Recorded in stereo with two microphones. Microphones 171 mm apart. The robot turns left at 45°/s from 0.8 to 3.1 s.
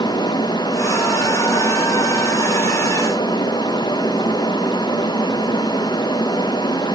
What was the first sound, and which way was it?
Only background noise.